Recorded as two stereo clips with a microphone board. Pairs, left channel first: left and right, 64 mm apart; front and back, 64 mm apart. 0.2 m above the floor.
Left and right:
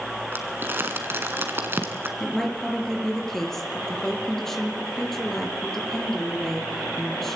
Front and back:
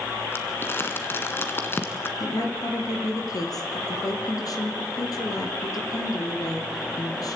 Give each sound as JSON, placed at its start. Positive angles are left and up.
{"t": 0.3, "sound": "crumpling", "azimuth_deg": -45, "distance_m": 2.0}
{"t": 2.2, "sound": "a woman speaking", "azimuth_deg": 5, "distance_m": 4.0}